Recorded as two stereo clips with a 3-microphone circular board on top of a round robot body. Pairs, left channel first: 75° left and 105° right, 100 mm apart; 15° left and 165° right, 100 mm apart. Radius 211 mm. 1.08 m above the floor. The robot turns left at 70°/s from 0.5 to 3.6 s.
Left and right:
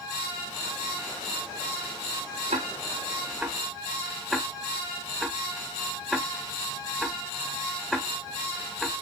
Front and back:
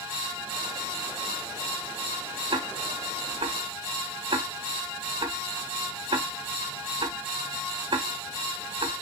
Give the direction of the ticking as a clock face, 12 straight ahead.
4 o'clock.